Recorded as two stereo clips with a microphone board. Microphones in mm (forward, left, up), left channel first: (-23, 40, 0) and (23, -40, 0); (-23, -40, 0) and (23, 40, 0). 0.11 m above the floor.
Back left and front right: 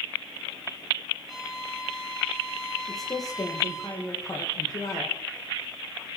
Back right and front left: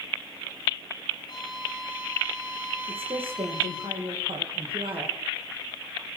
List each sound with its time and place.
1.3 s a violin: 150° right, 3.5 m
2.9 s a woman speaking: 70° left, 5.5 m